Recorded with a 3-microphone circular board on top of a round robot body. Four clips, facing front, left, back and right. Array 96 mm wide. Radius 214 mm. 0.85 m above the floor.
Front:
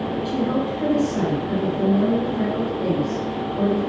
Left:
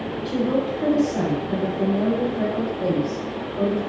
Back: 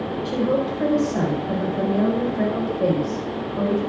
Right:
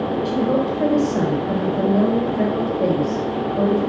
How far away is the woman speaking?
About 5.5 m.